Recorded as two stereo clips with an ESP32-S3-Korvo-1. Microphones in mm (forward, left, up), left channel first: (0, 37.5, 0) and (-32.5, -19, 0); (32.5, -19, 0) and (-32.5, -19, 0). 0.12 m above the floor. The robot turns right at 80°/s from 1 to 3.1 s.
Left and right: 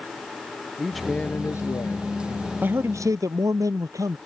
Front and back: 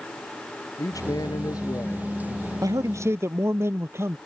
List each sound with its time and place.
0.8 s a man speaking: 30° right; by 2.5 s 90° left
2.6 s a man speaking: straight behind; by 4.2 s 140° right